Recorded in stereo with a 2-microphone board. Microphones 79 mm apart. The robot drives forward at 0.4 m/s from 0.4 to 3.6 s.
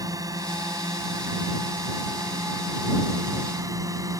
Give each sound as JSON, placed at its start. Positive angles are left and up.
{"t": 0.0, "sound": "a drone", "side_deg": -50}